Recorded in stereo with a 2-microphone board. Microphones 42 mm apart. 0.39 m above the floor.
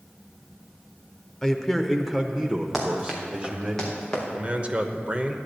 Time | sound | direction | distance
1.4 | a man speaking | 10° left (ahead or behind) | 0.8 m
2.7 | running footsteps | centre (ahead or behind) | 4 m
4.3 | a man speaking | 30° right (ahead or behind) | 0.9 m